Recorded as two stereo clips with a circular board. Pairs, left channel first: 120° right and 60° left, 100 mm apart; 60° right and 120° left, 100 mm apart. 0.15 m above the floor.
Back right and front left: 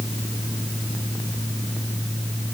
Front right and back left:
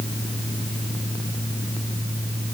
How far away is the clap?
No clap in this recording.